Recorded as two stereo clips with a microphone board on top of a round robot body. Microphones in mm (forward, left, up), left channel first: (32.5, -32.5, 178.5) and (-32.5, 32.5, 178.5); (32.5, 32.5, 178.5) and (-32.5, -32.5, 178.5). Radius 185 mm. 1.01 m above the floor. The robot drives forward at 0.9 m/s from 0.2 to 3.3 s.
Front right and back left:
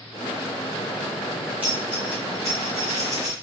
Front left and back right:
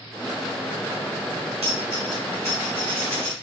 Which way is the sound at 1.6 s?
150° right.